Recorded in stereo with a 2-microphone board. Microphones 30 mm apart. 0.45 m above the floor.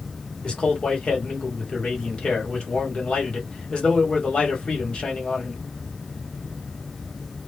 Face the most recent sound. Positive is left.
turn(degrees=35)  # may be behind; listen again after turning